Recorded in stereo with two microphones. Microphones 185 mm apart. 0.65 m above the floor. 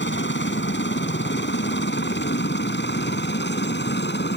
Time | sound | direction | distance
0.0 | a helicopter | 75° left (ahead or behind) | ?